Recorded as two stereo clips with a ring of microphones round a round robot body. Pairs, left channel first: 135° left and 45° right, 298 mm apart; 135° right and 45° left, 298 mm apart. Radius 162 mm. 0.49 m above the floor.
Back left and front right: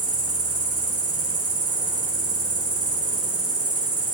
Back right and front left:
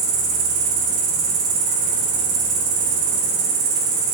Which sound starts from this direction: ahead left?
An insect, at 0.0 s.